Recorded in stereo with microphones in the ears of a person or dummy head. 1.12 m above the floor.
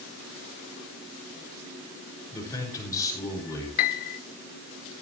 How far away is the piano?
About 0.9 m.